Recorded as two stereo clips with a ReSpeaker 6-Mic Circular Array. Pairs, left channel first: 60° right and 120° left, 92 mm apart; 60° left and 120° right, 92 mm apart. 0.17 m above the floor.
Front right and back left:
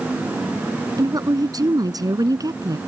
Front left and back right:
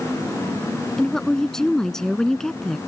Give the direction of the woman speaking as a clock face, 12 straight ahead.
7 o'clock.